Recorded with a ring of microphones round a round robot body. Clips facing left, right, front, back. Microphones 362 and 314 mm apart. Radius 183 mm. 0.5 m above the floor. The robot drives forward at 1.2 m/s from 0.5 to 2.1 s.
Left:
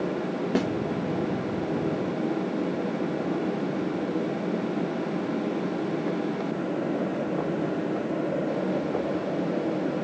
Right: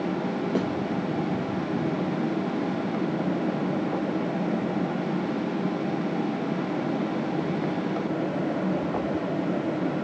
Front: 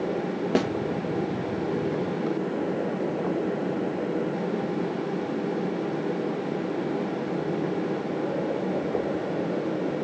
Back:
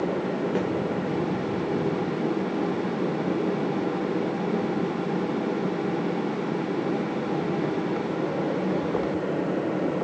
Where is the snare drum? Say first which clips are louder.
Left 2 dB, front 5 dB; 15° left, 1.0 m; by 0.7 s 20° left, 0.9 m.